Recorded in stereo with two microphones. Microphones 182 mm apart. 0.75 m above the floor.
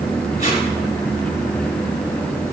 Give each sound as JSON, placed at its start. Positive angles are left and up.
{"t": 0.4, "sound": "tape being pulled", "side_deg": 50, "distance_m": 1.5}